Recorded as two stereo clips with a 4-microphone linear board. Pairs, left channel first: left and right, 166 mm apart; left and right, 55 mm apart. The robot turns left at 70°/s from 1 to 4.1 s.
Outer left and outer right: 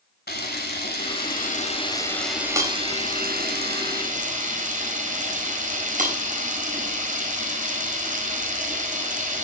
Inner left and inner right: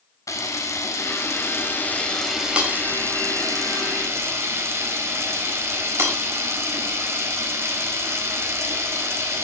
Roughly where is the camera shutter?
Left.